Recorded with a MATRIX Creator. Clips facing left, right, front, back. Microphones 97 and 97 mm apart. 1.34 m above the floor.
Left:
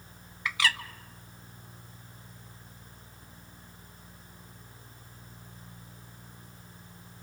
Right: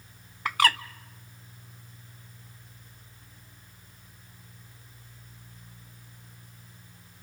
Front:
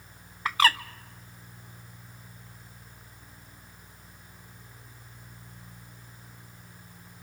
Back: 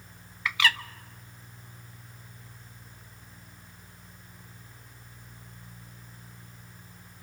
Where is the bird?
50° right, 0.6 m.